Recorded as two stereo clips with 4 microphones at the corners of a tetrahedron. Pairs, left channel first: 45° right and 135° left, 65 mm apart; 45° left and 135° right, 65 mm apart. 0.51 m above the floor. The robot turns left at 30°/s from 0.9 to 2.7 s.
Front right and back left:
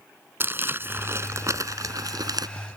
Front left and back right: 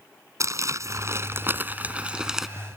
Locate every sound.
0.4 s crumpling: 170° right; by 2.5 s 140° left